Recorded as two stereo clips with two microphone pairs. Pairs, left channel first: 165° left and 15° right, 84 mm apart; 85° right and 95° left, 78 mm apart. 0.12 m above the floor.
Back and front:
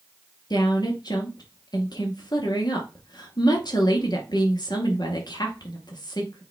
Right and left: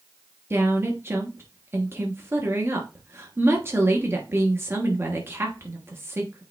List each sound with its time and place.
0.5 s a woman speaking: 150° left, 2.5 m